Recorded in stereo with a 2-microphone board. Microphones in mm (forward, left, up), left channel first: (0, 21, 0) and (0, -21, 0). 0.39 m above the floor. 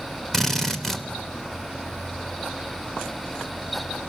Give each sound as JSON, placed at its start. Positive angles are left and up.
{"t": 0.3, "sound": "a drill", "side_deg": 10, "distance_m": 1.3}